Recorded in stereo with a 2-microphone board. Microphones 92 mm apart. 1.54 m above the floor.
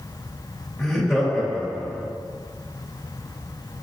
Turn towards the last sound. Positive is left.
turn(degrees=-10)  # may be behind; listen again after turning